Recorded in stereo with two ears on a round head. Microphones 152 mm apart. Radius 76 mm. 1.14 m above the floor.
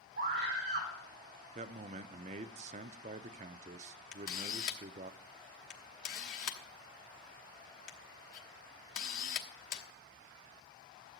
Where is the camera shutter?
50° left (ahead or behind), 1.2 m.